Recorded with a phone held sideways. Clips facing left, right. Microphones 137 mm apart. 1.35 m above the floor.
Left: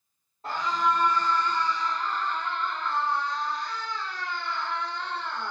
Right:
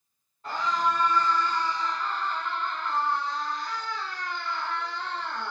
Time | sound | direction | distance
0.4 | a scream | 35° left (ahead or behind) | 3.5 m